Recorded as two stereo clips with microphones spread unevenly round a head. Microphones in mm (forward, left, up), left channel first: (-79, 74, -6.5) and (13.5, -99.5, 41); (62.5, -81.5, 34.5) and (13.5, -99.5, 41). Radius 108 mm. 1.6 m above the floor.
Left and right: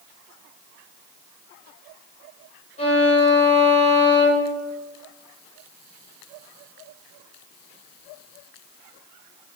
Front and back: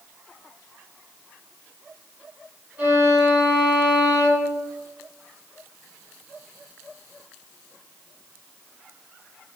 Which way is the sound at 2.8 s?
Straight behind.